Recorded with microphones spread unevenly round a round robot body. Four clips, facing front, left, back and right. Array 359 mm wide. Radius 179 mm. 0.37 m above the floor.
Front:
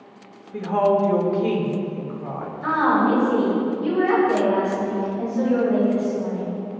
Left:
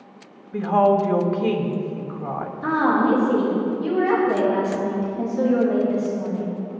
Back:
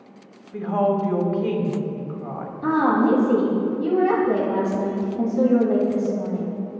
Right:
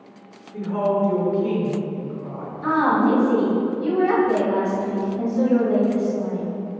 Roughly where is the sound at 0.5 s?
Left.